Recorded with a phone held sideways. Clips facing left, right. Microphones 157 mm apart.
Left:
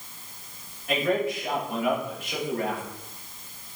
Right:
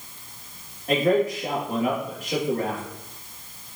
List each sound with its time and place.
0.9 s a man speaking: 40° right (ahead or behind), 2.5 m